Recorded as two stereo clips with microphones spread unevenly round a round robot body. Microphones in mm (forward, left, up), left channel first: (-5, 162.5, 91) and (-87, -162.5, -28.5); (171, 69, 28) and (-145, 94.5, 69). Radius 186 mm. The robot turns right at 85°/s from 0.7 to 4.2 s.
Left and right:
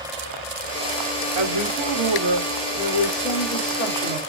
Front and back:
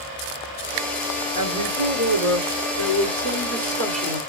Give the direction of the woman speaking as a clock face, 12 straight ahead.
5 o'clock.